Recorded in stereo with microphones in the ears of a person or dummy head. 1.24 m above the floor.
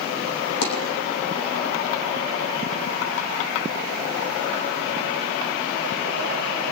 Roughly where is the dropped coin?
Left.